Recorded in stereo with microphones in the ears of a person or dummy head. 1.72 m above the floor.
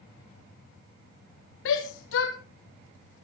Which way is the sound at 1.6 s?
80° left.